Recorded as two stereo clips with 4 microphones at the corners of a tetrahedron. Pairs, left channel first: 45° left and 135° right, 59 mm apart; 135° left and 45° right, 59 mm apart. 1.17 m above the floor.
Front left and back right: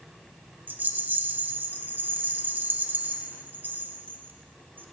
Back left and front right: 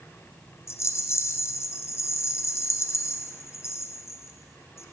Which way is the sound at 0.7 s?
170° left.